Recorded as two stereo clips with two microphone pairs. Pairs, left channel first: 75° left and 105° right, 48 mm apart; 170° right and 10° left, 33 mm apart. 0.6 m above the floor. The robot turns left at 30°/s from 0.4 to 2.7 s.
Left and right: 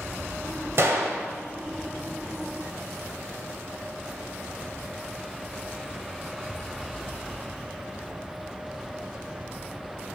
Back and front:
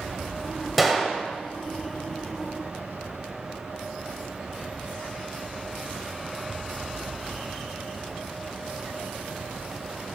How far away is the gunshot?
About 1.6 m.